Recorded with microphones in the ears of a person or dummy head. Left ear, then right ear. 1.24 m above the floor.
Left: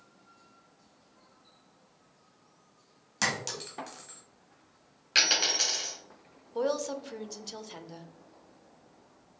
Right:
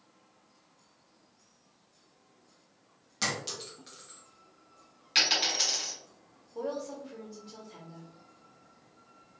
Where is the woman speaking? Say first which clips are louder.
Left 6 dB; 75° left (ahead or behind), 0.5 m.